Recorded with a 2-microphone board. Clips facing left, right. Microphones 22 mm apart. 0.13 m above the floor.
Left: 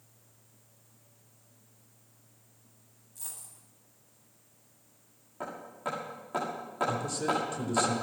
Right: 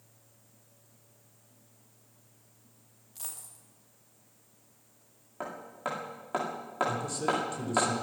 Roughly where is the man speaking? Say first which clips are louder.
Left 1 dB; centre.